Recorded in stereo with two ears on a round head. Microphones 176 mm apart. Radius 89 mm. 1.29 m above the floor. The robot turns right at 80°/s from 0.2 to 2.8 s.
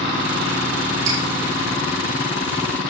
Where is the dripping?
65° right (ahead or behind), 6.5 m; by 1.2 s 55° right (ahead or behind), 6.5 m.